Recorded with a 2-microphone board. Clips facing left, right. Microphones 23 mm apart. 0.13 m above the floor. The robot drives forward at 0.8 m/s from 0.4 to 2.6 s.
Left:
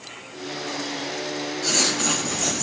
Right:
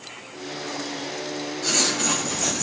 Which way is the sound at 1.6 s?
5° left (ahead or behind).